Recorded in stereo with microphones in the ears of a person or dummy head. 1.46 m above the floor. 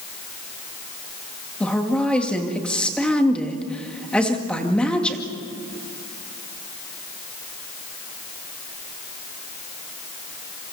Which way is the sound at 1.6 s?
5° left (ahead or behind).